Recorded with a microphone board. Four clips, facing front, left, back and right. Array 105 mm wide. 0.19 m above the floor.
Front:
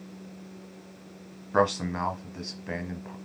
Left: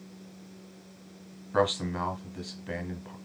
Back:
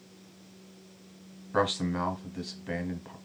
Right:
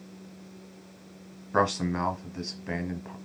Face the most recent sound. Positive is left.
turn(degrees=-55)